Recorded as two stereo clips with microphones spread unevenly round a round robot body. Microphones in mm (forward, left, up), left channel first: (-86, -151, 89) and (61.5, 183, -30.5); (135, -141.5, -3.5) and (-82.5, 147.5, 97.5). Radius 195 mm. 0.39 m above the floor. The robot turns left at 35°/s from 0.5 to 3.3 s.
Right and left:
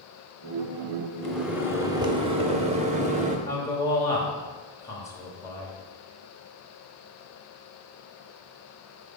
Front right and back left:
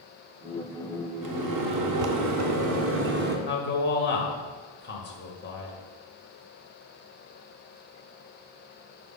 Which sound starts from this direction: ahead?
A man speaking, at 3.5 s.